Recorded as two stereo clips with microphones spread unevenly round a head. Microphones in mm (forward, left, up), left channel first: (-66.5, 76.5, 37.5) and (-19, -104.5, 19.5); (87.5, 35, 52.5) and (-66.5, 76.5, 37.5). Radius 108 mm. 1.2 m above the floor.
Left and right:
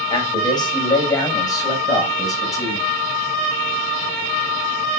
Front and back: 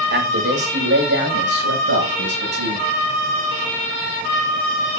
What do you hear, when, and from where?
0.1 s a man speaking: 170° left, 7.5 m; by 2.9 s straight behind, 10 m